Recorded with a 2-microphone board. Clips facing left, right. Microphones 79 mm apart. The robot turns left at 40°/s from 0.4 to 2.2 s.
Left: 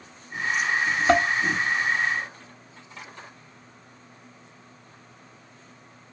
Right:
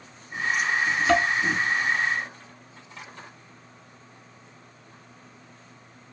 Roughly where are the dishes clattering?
Left.